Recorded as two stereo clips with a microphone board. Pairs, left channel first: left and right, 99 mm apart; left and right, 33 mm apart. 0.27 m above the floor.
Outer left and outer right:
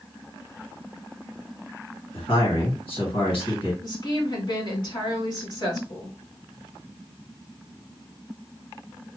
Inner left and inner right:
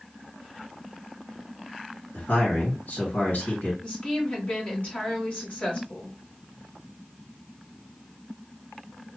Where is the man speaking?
65° left (ahead or behind), 2.5 m.